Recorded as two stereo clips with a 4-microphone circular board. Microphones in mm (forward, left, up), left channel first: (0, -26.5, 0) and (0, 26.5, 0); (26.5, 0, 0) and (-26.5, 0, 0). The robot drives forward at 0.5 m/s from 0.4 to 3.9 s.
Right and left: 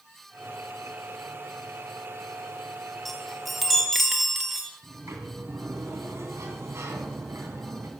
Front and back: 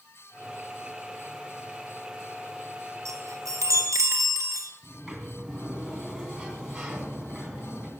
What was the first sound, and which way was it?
A chime, straight behind.